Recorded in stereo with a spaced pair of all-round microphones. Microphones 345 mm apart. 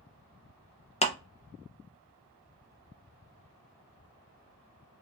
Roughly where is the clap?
Centre.